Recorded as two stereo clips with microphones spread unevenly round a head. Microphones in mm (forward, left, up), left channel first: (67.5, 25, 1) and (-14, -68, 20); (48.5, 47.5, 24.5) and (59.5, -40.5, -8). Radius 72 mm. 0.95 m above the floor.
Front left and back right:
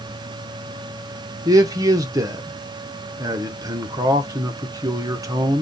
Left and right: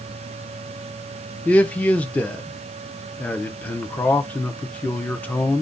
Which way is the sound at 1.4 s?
160° right.